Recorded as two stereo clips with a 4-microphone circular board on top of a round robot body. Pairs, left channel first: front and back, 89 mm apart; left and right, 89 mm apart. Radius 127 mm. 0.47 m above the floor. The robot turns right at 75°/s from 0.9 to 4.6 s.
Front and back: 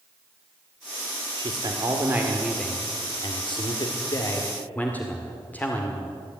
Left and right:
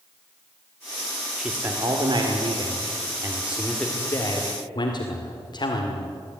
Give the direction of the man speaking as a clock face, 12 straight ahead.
6 o'clock.